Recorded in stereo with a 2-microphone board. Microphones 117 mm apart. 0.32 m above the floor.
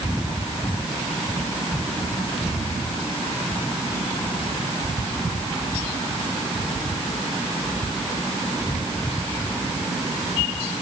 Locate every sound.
Only background noise.